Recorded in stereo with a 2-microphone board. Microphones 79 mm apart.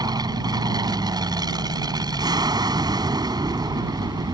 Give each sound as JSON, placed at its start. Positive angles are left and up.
{"t": 0.0, "sound": "an aircraft", "side_deg": -55}